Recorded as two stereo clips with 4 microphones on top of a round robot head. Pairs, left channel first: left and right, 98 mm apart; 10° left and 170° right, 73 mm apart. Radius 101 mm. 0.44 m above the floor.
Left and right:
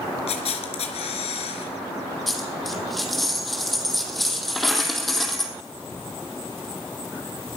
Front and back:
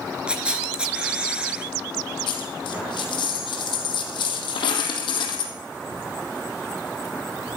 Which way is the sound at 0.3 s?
115° left.